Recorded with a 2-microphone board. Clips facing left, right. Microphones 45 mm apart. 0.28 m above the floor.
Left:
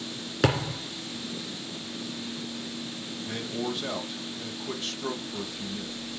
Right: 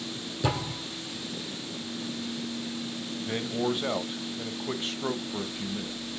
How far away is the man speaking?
About 1.0 m.